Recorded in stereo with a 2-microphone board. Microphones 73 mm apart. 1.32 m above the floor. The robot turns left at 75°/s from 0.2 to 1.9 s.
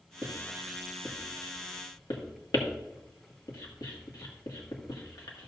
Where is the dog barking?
No dog barking in this recording.